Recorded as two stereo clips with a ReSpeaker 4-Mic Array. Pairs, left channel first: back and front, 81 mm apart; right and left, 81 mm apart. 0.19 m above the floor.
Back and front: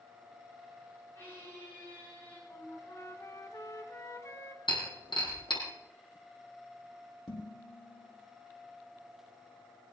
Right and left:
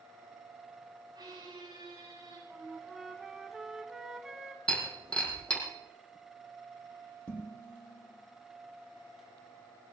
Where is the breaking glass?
170° right, 4.5 m.